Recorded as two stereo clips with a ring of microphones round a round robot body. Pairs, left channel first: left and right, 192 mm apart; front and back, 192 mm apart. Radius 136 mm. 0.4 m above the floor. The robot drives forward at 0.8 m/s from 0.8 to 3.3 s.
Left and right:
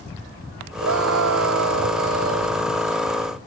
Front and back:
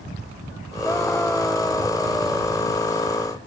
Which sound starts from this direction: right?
A scream, at 0.8 s.